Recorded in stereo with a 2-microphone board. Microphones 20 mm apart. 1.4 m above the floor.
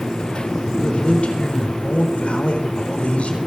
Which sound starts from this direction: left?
A man speaking, at 0.7 s.